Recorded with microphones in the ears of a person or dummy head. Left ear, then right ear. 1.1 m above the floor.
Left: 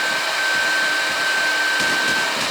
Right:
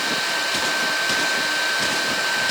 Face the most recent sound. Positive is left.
No sound to turn to.